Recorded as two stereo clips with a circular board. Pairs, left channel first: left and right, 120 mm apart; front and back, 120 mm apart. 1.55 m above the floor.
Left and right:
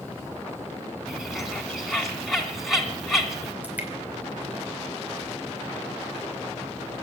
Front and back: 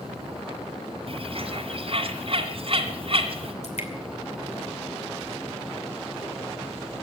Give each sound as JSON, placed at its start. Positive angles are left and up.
{"t": 1.1, "sound": "a bird", "azimuth_deg": 180, "distance_m": 2.0}
{"t": 3.6, "sound": "dripping", "azimuth_deg": -15, "distance_m": 2.5}